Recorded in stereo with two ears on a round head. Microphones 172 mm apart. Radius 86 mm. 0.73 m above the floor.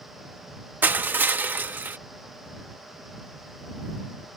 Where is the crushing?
10° right (ahead or behind).